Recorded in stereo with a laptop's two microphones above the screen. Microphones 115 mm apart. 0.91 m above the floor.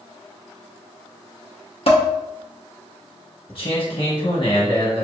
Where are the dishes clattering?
60° left (ahead or behind), 0.6 m.